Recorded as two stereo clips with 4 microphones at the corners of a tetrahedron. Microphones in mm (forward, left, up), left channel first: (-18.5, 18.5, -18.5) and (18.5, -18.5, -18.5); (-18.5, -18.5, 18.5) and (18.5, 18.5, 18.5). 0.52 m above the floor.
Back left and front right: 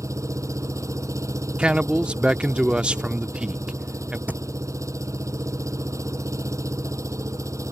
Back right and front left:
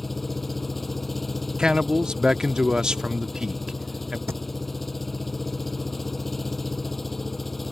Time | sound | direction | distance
0.0 | an engine running | 45° right | ?
1.6 | a man speaking | 10° right | ?
4.3 | a thud | 10° left | ?